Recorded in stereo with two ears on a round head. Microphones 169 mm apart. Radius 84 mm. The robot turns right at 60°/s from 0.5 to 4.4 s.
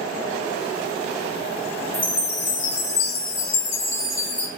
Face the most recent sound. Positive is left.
turn(degrees=175)